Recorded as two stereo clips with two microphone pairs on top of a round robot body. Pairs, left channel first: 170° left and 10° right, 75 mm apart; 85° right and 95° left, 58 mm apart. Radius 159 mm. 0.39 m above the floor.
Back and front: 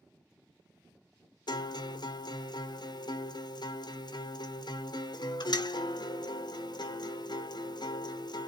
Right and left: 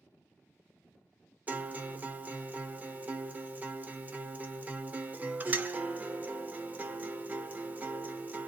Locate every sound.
1.5 s a guitar: 155° left, 1.0 m